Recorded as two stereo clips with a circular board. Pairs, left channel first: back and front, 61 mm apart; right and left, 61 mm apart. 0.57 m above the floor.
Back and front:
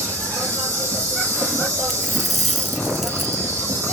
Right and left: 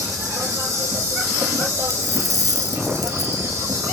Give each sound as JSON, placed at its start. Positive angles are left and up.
{"t": 0.0, "sound": "an insect", "azimuth_deg": 45, "distance_m": 5.5}
{"t": 1.9, "sound": "a dropped coin", "azimuth_deg": 90, "distance_m": 1.5}